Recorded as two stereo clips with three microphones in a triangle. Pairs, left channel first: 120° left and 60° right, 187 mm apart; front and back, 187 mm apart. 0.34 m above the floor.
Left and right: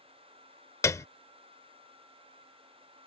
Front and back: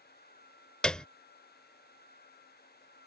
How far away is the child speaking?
No child speaking in this recording.